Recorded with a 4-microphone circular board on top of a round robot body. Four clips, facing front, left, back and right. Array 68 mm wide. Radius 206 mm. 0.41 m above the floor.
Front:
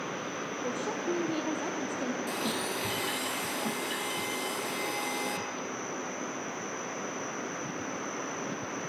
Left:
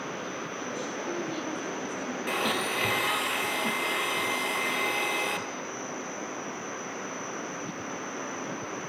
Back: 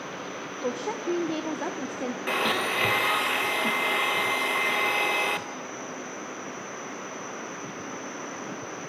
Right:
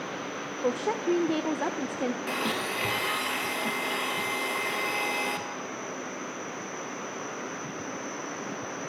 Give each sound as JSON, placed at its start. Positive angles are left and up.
{"t": 0.6, "sound": "a woman speaking", "azimuth_deg": -120, "distance_m": 1.5}
{"t": 2.3, "sound": "a blender", "azimuth_deg": 175, "distance_m": 1.9}